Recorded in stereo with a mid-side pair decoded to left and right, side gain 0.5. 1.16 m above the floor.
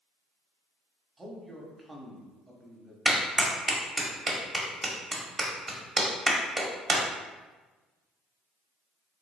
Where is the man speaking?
25° right, 1.0 m.